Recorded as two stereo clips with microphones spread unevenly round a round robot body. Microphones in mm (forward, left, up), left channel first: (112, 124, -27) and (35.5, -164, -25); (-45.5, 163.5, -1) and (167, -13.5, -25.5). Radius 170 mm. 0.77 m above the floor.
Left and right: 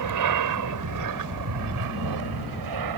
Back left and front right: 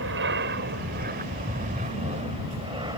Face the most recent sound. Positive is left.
turn(degrees=-120)